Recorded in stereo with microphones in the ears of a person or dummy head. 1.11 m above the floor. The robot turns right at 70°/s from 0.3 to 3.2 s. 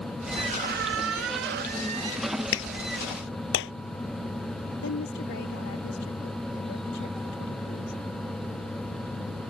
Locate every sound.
0.4 s a squeak: 150° right; by 2.4 s 10° right
2.5 s a clap: 70° left (ahead or behind); by 3.7 s 60° left (ahead or behind)
4.8 s a woman speaking: 55° left (ahead or behind)